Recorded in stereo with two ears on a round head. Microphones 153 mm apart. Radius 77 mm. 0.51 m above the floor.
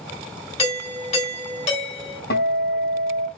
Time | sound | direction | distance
0.6 | a doorbell | 40° left (ahead or behind) | 5.5 m
2.3 | a guitar | 65° left (ahead or behind) | 3 m